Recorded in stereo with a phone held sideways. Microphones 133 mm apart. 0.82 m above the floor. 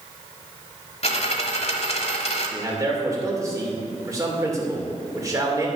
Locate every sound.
1.0 s a dropped coin: 50° left (ahead or behind), 1.1 m
2.5 s a man speaking: 25° right (ahead or behind), 2.5 m